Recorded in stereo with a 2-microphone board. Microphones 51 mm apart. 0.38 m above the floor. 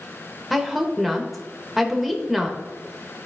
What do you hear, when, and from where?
0.5 s a woman speaking: 5° right (ahead or behind), 1.0 m